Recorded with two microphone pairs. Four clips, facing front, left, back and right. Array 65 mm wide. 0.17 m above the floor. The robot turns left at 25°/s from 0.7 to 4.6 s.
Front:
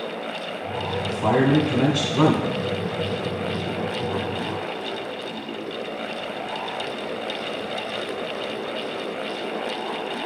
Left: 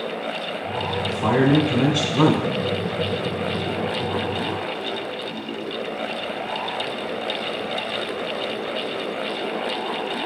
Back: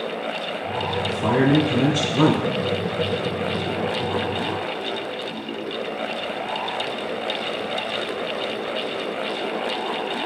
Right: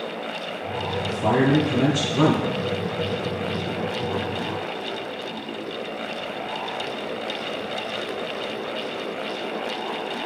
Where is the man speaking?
65° left, 1.3 m; by 2.5 s 25° left, 1.3 m.